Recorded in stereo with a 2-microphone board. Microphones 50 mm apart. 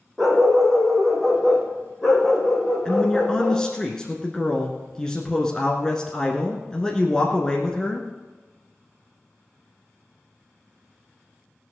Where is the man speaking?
15° left (ahead or behind), 1.2 m.